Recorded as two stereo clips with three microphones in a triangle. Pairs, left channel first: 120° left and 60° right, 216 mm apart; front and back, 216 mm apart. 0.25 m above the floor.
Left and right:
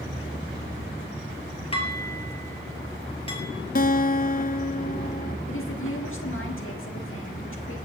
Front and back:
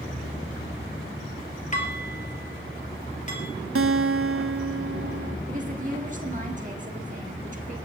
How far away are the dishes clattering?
About 3.5 m.